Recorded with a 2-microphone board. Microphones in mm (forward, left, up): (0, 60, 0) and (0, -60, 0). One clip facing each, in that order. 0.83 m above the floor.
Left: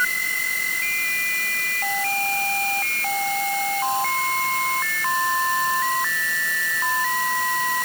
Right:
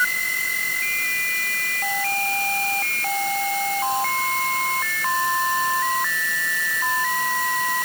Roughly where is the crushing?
I don't hear crushing.